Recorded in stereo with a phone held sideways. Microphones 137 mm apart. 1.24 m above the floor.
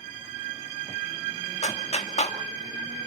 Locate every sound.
1.6 s a clap: 55° left (ahead or behind), 1.9 m